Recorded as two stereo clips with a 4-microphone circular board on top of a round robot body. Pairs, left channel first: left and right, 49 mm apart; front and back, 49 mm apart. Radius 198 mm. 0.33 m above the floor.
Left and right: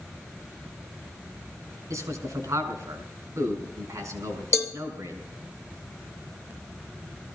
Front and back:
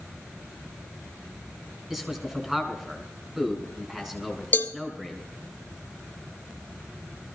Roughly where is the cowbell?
Ahead left.